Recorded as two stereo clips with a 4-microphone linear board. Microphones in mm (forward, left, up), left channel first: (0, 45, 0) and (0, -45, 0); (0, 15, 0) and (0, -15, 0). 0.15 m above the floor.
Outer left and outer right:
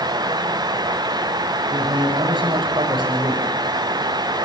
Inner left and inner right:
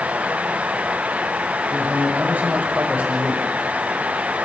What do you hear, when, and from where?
1.7 s a man speaking: 70° right (ahead or behind), 5.5 m